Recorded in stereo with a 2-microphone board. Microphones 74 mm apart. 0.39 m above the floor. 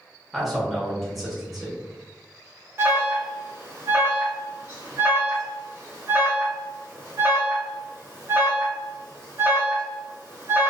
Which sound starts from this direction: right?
An alarm, at 2.8 s.